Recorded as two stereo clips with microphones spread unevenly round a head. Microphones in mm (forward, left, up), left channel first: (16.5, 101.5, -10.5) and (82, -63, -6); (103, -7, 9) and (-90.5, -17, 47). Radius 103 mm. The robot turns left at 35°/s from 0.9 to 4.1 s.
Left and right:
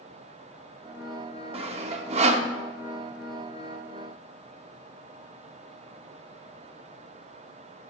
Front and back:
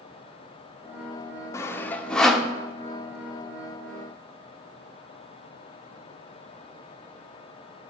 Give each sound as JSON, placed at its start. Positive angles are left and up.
{"t": 1.5, "sound": "sawing", "azimuth_deg": -40, "distance_m": 0.6}